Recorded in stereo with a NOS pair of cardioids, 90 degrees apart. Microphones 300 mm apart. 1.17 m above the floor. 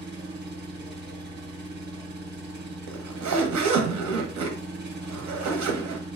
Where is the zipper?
70° right, 0.8 m.